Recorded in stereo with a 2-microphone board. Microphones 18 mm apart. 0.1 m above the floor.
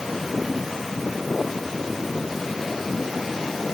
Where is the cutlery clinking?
I don't hear cutlery clinking.